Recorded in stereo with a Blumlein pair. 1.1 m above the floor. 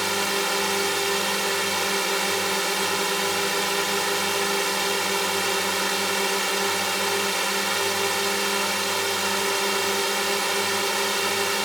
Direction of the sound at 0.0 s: 5° right.